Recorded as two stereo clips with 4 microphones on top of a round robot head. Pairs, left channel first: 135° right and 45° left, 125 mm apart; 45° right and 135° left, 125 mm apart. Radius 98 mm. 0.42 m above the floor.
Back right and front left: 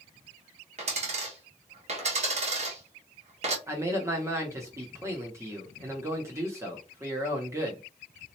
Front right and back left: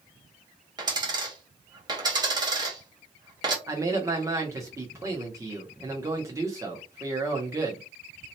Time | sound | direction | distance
0.8 | a dropped coin | 80° left | 1.3 m
3.7 | a man speaking | 95° left | 1.0 m